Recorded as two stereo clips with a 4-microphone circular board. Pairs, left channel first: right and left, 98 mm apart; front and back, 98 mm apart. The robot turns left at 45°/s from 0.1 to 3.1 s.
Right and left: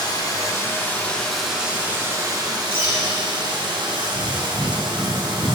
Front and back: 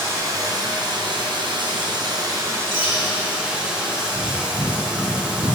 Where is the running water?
120° right, 1.4 m; by 5.5 s 105° left, 1.4 m.